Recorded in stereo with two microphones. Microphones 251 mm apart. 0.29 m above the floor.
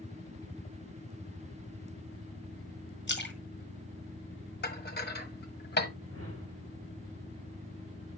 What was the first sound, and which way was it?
A splash, 45° left (ahead or behind).